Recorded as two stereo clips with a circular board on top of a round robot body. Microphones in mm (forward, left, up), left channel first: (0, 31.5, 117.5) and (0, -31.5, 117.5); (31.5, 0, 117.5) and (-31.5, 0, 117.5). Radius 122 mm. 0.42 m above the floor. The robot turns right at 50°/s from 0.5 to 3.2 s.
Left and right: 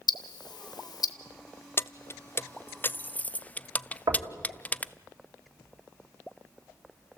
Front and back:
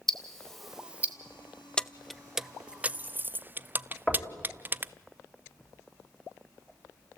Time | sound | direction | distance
0.1 | ticking | 85° left | 0.6 m
1.8 | keys jangling | 70° left | 0.5 m
4.1 | knocking | 80° right | 3 m